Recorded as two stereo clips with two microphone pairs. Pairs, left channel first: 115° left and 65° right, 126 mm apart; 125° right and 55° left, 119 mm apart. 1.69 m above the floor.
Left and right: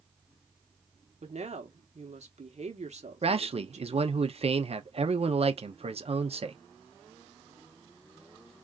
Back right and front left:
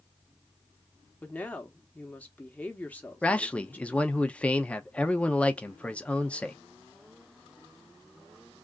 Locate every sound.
1.2 s a woman speaking: 50° right, 1.0 m
3.2 s a man speaking: 45° right, 0.6 m